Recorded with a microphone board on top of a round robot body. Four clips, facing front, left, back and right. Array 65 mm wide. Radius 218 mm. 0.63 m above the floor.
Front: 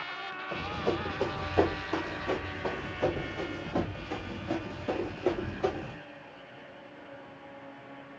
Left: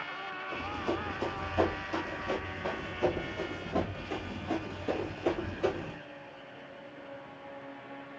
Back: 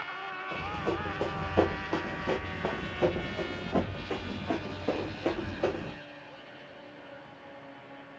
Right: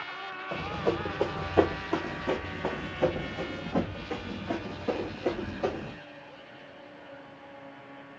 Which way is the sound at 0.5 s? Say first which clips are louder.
Right 5 dB, front 1 dB; 95° right.